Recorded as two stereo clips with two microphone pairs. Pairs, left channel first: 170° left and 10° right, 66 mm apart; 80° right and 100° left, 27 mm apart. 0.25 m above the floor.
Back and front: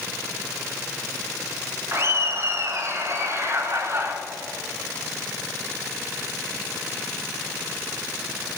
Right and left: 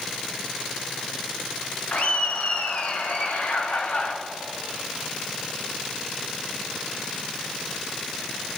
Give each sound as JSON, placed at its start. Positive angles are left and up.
{"t": 1.9, "sound": "laughter", "azimuth_deg": -50, "distance_m": 2.5}